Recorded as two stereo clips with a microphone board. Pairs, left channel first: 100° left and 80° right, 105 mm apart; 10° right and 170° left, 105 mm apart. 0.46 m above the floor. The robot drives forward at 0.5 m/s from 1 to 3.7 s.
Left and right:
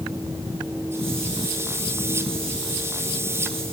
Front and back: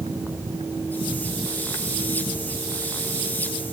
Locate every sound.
Only background noise.